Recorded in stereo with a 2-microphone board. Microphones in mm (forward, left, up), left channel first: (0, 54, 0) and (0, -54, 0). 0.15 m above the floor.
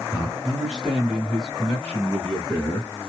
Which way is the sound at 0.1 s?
10° right (ahead or behind).